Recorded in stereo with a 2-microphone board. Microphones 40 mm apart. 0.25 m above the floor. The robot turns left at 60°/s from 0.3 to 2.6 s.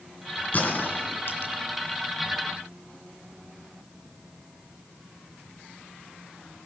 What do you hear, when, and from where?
0.5 s a gunshot: 45° left (ahead or behind), 2.5 m; by 1.6 s 60° left (ahead or behind), 2.5 m